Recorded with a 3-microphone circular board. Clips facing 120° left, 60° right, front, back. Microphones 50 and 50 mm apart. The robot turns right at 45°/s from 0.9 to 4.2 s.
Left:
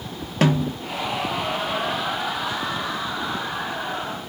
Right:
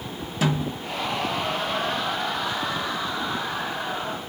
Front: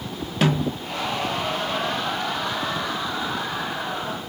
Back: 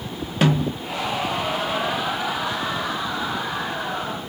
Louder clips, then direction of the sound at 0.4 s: Left 5 dB, back 2 dB; 95° left.